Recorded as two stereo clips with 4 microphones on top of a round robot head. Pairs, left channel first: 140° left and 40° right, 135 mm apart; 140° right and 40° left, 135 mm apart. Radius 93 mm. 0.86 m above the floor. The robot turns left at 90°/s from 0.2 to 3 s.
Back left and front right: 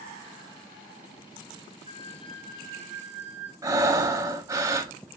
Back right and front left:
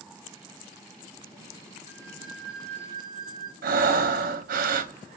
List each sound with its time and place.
1.9 s a flute: 20° left, 1.0 m; by 3.5 s 85° right, 1.0 m
3.6 s breathing: 30° left, 0.6 m